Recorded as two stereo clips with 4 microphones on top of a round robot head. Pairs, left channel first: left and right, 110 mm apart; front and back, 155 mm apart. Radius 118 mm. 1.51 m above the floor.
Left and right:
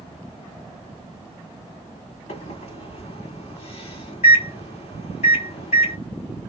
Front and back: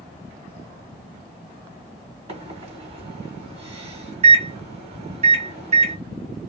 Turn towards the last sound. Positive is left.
turn(degrees=135)